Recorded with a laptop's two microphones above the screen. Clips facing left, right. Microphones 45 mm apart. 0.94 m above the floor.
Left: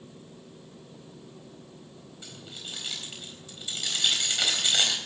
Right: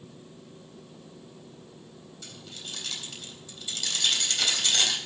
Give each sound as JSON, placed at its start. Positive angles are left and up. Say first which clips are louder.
{"t": 2.2, "sound": "keys jangling", "louder": "left 1 dB", "side_deg": 15, "distance_m": 4.0}